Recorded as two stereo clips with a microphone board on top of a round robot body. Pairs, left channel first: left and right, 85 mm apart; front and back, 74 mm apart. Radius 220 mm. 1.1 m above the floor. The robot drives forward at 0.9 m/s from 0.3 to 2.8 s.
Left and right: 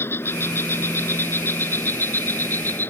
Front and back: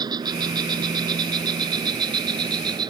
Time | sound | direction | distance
0.0 | an insect | 155° left | ?